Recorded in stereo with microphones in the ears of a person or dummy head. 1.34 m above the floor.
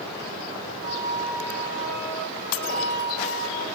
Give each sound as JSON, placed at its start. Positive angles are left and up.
{"t": 0.8, "sound": "a flute", "side_deg": -80, "distance_m": 5.5}